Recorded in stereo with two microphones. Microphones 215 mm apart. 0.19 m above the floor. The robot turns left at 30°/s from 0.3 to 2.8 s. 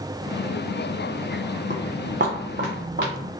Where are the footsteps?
55° right (ahead or behind), 0.5 m.